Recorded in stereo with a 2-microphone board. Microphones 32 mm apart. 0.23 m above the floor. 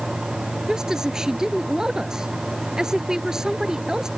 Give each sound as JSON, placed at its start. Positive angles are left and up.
{"t": 0.7, "sound": "a woman speaking", "side_deg": -20}